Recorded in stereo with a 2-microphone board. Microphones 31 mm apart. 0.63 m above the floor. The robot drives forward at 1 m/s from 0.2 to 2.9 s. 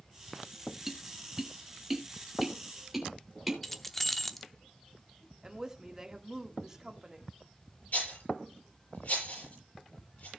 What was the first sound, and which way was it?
Tapping, 10° right (ahead or behind).